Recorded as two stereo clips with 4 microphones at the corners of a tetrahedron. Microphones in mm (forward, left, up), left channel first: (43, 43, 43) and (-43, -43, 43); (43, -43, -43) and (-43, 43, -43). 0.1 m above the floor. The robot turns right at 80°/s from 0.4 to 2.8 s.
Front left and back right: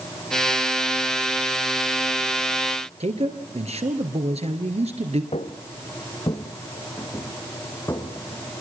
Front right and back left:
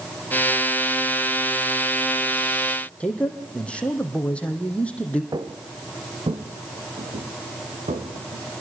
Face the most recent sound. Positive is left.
turn(degrees=110)